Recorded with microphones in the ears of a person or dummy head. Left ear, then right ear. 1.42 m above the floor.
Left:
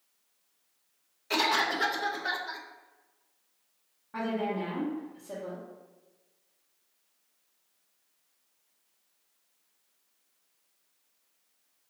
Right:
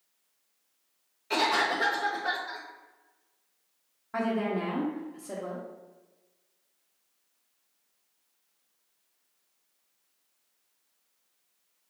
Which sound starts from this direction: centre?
A cough, at 1.3 s.